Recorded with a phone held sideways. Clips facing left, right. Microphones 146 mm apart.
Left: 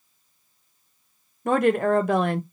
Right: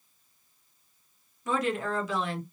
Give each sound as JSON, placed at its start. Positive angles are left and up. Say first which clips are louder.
{"t": 1.4, "sound": "a woman speaking", "louder": "left 9 dB", "side_deg": 60, "distance_m": 0.6}